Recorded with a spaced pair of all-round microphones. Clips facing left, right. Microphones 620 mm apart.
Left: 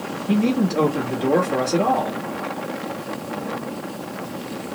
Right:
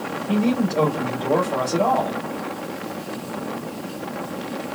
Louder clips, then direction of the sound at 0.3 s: Left 1 dB; 40° left (ahead or behind).